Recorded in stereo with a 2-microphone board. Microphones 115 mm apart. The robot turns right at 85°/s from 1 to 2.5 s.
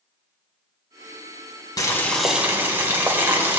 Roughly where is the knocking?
No knocking in this recording.